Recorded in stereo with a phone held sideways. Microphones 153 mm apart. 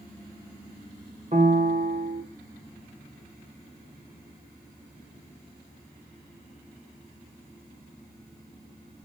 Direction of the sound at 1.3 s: 50° right (ahead or behind).